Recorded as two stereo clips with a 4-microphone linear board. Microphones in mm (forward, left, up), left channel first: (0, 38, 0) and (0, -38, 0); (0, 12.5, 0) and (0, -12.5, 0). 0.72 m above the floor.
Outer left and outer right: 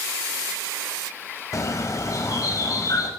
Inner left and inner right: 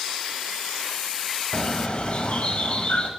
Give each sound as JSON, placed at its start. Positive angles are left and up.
{"t": 1.5, "sound": "a bird", "side_deg": 45, "distance_m": 1.2}